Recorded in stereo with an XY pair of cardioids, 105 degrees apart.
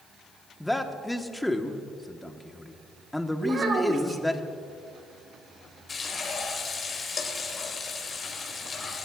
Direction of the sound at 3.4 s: 45° right.